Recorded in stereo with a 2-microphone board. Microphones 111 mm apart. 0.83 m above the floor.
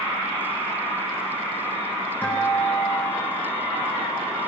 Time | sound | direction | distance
2.2 | a guitar | 15° left (ahead or behind) | 6 m